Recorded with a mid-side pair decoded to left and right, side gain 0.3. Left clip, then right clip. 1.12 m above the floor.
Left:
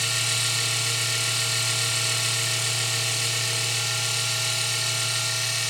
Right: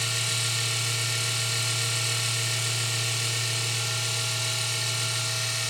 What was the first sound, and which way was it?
A machine running, 40° left.